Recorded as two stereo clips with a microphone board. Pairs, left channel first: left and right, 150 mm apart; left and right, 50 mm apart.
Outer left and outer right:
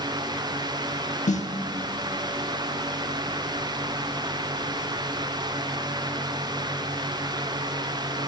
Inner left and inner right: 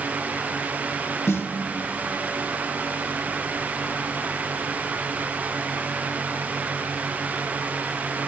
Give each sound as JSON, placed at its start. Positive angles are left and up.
{"t": 1.3, "sound": "a snare drum", "side_deg": 55, "distance_m": 1.1}